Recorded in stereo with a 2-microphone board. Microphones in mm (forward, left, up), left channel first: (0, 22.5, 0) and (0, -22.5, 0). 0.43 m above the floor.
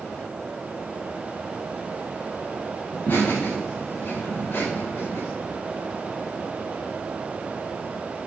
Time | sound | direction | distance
2.9 | laughter | 50° left (ahead or behind) | 3.5 m